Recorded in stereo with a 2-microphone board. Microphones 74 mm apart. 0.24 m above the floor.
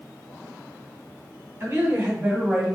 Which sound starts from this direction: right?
A woman speaking, at 1.6 s.